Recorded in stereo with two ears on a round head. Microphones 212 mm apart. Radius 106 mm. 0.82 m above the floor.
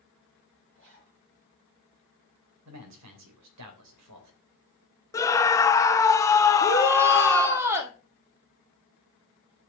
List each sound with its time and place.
0.8 s a zipper: 55° right (ahead or behind), 4 m
2.6 s a man speaking: 80° right, 3 m
5.1 s a scream: 15° left (ahead or behind), 0.8 m
6.6 s a shout: 10° right (ahead or behind), 1.7 m